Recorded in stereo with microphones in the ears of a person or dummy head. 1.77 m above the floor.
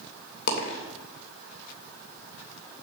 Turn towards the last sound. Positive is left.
turn(degrees=60)  # may be behind; listen again after turning